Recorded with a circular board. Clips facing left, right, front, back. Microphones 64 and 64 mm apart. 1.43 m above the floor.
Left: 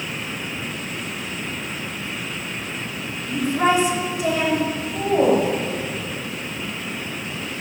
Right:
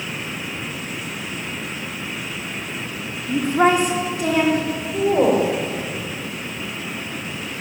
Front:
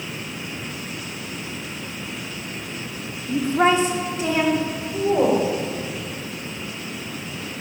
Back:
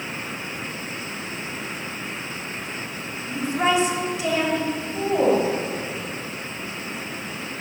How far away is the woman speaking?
About 3 m.